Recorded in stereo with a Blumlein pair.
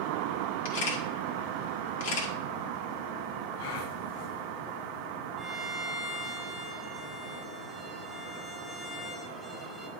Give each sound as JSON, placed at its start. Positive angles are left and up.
{"t": 0.7, "sound": "a camera shutter", "azimuth_deg": 55, "distance_m": 2.0}
{"t": 3.6, "sound": "a gasp", "azimuth_deg": 50, "distance_m": 0.9}
{"t": 5.4, "sound": "a violin", "azimuth_deg": 0, "distance_m": 1.8}